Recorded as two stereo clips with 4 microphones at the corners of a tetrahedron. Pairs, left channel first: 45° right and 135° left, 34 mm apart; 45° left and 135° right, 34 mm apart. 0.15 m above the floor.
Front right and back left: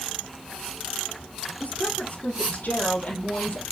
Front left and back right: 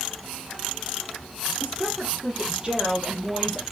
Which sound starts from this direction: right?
A woman speaking, at 1.6 s.